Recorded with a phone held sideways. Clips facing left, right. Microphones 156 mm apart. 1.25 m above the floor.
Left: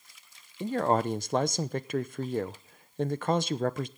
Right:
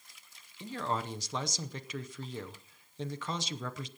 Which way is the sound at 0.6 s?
60° left (ahead or behind).